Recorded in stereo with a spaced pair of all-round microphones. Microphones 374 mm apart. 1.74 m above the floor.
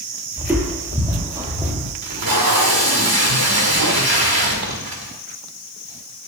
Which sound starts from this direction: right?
Tape being pulled, at 2.0 s.